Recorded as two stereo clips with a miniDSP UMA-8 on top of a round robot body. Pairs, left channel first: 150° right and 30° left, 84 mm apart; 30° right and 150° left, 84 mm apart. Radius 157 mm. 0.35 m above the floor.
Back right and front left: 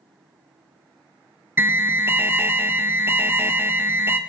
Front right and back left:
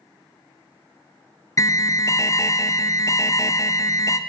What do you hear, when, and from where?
1.6 s an alarm: 20° right, 0.6 m